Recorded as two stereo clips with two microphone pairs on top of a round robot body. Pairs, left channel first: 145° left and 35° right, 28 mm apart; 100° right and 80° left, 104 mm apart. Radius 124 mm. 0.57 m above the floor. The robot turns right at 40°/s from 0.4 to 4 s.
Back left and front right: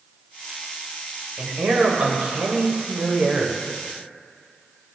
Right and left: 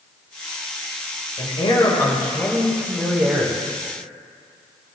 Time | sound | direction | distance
1.4 | a man speaking | 65° right | 2.5 m